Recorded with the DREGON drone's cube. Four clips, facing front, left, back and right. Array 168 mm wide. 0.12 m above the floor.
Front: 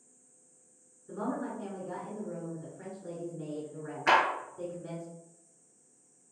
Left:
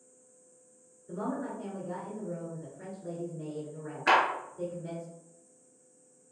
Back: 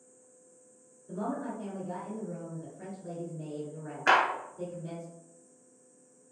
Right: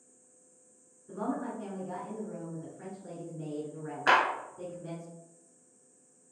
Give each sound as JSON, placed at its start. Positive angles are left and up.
{"t": 1.1, "sound": "a woman speaking", "azimuth_deg": -20, "distance_m": 1.5}
{"t": 4.1, "sound": "a clap", "azimuth_deg": -135, "distance_m": 1.3}